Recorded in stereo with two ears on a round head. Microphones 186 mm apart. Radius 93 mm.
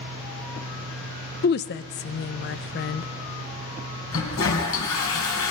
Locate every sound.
1.4 s a woman speaking: 50° left (ahead or behind), 0.6 m
4.1 s a toilet flushing: 70° left (ahead or behind), 4 m